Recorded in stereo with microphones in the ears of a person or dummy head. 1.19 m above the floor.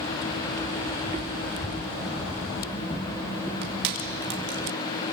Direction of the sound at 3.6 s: 60° right (ahead or behind).